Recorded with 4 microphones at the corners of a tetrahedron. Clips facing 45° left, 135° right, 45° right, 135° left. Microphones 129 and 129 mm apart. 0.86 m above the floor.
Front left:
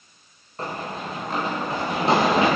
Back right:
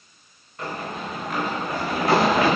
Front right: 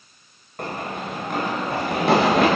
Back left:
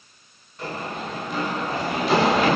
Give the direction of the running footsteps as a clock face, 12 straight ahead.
12 o'clock.